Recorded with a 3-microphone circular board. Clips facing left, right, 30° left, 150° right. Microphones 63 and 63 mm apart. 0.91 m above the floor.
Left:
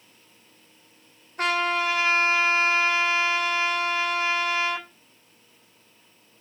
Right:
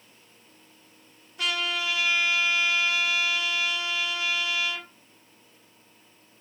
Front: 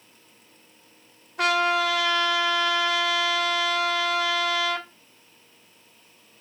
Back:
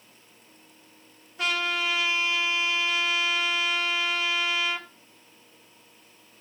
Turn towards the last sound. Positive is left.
turn(degrees=50)